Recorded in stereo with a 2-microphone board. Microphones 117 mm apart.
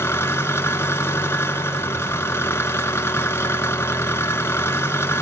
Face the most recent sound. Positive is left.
turn(degrees=20)  # may be behind; listen again after turning